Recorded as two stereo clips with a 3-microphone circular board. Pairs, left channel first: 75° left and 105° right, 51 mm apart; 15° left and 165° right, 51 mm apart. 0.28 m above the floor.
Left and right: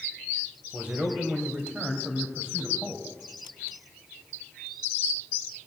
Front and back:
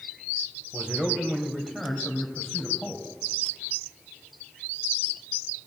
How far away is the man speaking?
About 1.5 m.